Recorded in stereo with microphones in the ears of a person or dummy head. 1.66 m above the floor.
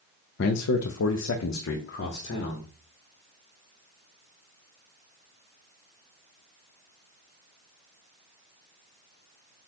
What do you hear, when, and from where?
0.4 s a man speaking: 60° left (ahead or behind), 0.6 m; by 2.7 s 40° left (ahead or behind), 1.3 m